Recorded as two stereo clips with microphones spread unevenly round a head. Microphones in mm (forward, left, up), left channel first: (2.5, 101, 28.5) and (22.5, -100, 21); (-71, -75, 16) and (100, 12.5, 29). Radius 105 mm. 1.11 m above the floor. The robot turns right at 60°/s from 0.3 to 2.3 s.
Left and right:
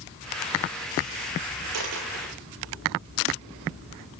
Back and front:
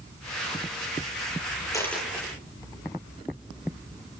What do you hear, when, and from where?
1.7 s a dropped coin: 80° right, 8 m; by 2.3 s 45° right, 8 m